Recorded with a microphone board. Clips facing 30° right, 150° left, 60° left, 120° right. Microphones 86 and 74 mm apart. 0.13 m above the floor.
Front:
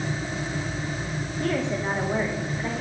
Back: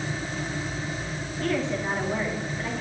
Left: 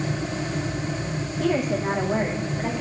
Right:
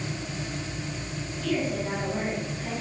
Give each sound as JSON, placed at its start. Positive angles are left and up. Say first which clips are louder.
{"t": 1.4, "sound": "a woman speaking", "louder": "front 1 dB, left 5 dB", "azimuth_deg": 40, "distance_m": 7.0}